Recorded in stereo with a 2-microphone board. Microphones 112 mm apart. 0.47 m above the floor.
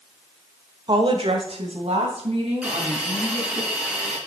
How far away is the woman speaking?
About 1.2 m.